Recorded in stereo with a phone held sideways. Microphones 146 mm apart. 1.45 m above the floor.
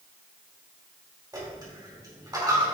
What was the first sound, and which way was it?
A dropped coin, 25° right (ahead or behind).